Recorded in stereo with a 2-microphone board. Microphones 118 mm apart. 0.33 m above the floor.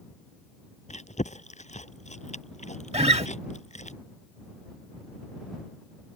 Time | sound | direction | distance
0.9 | chewing | 80° left | ?
2.9 | a guitar | 60° right (ahead or behind) | ?